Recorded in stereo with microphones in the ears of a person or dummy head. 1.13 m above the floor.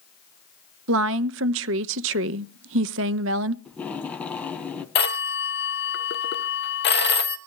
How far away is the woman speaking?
About 0.6 m.